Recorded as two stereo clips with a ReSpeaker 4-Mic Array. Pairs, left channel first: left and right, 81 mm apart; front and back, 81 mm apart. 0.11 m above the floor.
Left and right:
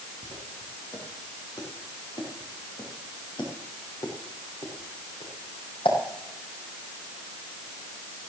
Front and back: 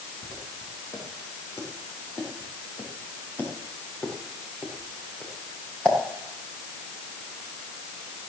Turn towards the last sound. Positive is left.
turn(degrees=85)